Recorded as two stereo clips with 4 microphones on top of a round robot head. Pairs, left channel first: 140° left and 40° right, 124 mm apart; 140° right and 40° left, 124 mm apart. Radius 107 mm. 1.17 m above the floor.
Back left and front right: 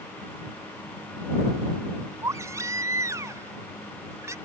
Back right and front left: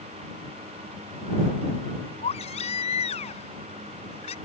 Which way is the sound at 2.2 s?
105° right.